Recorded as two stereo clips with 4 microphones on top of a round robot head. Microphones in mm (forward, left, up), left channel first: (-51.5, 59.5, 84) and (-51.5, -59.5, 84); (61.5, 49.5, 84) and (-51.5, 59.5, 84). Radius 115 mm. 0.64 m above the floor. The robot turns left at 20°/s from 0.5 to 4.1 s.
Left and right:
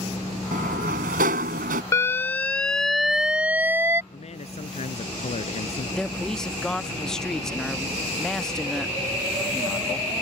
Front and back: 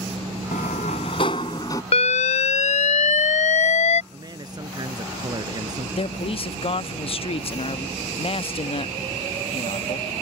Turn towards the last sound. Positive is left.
turn(degrees=5)